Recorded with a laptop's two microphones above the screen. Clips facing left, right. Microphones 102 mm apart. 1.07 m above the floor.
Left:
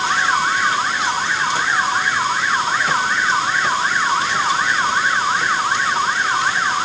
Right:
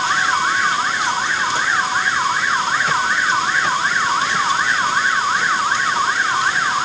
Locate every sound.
Only background noise.